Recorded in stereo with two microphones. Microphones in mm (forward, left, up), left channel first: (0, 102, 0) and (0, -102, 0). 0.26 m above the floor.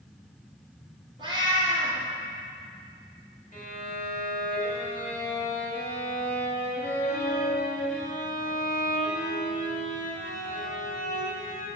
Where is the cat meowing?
20° right (ahead or behind), 3 m.